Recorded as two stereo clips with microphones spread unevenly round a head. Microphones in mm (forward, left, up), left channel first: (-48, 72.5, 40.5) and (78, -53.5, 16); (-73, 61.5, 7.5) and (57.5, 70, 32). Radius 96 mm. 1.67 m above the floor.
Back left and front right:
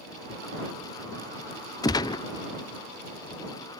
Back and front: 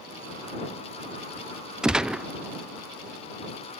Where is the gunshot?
75° left.